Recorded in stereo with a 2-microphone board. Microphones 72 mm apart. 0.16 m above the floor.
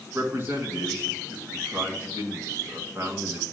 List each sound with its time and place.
0.1 s a man speaking: 35° right (ahead or behind), 1.6 m